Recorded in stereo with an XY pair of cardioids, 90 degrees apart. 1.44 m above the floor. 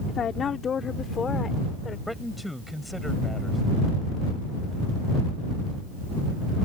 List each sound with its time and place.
0.1 s a woman speaking: 60° left; by 2.0 s 35° left
2.1 s a man speaking: 5° left